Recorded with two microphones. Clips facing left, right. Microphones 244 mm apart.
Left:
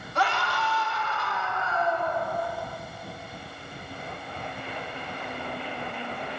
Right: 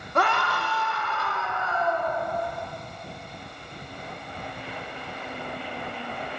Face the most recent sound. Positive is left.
turn(degrees=-60)  # may be behind; listen again after turning